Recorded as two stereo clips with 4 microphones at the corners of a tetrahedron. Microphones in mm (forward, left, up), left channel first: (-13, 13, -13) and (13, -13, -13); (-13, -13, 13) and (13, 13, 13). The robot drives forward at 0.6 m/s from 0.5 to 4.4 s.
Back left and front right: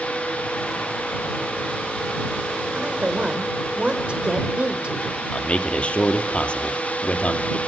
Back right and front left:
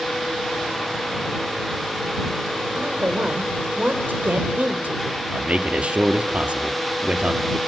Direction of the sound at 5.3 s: 90° left.